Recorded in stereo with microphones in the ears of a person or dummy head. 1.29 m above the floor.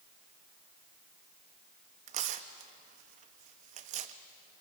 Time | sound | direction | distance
2.1 | tearing paper | 40° right (ahead or behind) | 0.9 m